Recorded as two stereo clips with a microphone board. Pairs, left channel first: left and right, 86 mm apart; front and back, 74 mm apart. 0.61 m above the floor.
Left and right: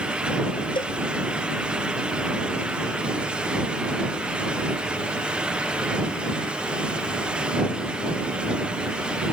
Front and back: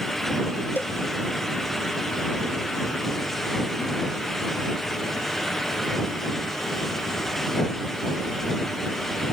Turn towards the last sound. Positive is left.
turn(degrees=65)